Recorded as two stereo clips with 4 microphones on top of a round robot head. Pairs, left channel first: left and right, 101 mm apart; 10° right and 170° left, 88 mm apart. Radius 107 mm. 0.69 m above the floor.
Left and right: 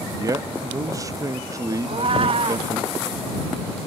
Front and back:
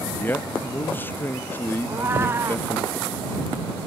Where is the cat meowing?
120° right.